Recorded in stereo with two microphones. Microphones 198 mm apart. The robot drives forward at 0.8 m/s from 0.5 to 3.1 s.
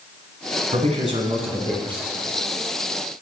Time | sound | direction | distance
0.7 | a man speaking | 40° right (ahead or behind) | 1.3 m